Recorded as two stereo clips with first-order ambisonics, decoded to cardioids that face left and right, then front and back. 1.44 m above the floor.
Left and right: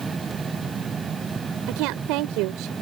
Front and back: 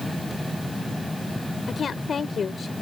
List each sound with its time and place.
1.7 s a woman speaking: 65° right